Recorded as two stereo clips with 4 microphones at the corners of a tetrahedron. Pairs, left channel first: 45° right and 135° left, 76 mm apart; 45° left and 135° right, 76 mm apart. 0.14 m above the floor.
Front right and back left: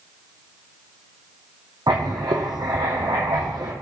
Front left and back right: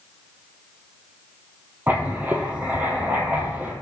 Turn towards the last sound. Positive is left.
turn(degrees=160)